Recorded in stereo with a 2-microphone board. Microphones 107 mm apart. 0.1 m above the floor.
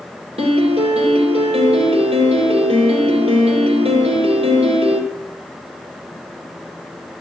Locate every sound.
0.4 s a piano: 70° right (ahead or behind), 3.5 m